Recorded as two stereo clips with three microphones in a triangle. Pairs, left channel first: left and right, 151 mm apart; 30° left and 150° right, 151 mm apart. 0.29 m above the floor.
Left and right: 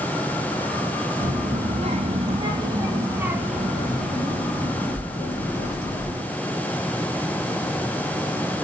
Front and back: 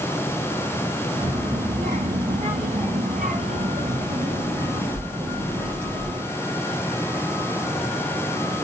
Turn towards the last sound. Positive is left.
turn(degrees=155)